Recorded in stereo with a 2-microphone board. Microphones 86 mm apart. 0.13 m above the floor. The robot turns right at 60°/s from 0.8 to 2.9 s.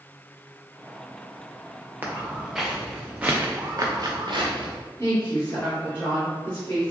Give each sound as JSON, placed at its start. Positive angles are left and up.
{"t": 2.0, "sound": "footsteps", "side_deg": -25, "distance_m": 0.9}
{"t": 5.0, "sound": "a woman speaking", "side_deg": 30, "distance_m": 1.3}